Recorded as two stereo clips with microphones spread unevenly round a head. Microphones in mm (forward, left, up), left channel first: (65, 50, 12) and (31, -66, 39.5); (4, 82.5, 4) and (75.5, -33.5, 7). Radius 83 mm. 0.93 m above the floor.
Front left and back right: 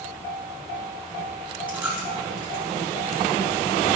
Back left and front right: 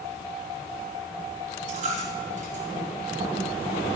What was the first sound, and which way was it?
A dropped coin, 30° right.